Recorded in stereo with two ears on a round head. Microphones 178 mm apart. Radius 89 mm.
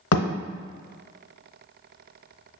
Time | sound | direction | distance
0.1 | a thud | 80° left | 0.8 m